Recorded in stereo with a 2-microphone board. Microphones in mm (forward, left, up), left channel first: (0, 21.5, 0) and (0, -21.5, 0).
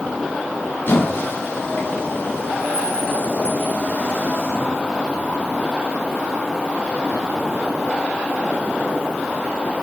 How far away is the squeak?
About 4 m.